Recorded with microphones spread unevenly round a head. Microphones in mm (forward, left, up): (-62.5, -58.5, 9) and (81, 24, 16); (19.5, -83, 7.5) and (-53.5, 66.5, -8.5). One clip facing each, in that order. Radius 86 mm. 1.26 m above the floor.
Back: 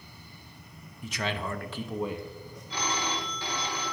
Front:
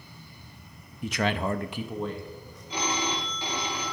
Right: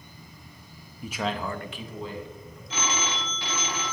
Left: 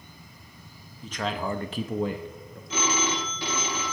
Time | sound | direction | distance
1.0 | a man speaking | 15° left | 0.7 m
2.7 | a phone ringing | 105° left | 0.9 m